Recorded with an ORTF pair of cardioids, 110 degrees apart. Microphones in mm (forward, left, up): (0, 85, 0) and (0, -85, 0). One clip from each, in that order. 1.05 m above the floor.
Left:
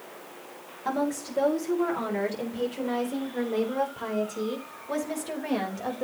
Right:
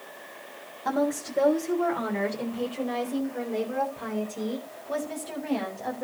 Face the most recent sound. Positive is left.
turn(degrees=30)